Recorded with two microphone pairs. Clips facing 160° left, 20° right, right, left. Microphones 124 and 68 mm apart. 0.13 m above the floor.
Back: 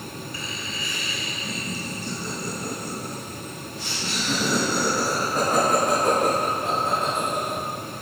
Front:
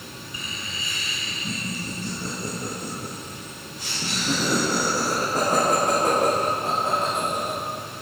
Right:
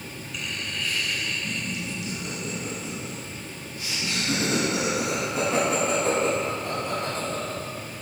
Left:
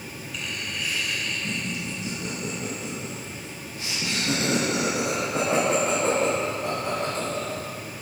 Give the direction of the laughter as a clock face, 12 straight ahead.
1 o'clock.